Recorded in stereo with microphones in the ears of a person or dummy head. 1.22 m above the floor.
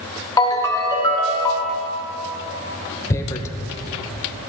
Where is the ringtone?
20° left (ahead or behind), 0.8 m.